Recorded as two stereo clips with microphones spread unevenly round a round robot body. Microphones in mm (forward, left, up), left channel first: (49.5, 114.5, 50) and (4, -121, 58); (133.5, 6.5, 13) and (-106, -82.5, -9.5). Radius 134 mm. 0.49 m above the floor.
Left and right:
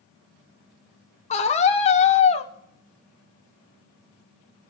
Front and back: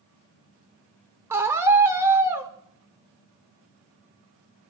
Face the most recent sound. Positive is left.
turn(degrees=130)